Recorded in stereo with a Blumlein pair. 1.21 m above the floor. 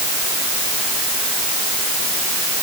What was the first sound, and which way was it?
Only background noise.